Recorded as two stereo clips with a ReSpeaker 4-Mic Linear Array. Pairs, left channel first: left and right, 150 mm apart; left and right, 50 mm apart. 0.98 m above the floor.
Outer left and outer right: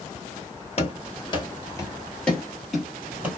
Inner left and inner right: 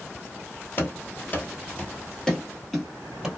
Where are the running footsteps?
45° left (ahead or behind), 1.3 m; by 3.3 s 10° right (ahead or behind), 1.5 m.